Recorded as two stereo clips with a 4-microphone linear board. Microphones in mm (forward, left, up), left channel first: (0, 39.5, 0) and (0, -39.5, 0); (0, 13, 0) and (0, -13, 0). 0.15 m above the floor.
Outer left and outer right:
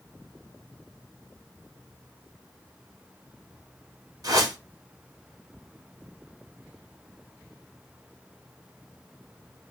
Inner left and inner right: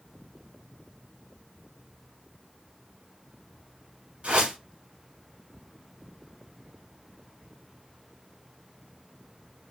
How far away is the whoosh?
About 1.6 m.